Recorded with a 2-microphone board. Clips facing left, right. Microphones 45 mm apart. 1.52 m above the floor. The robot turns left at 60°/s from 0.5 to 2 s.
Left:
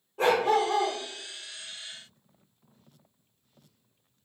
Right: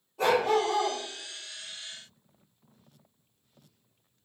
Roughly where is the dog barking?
Left.